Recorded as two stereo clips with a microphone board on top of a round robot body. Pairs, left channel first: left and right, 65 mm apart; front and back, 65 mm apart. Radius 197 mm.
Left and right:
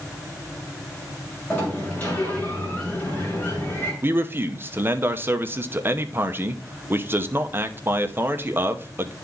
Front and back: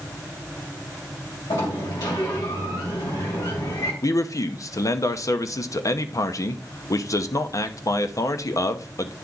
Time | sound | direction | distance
1.5 | a sliding door | 20° left | 2 m
4.0 | a man speaking | 35° right | 0.9 m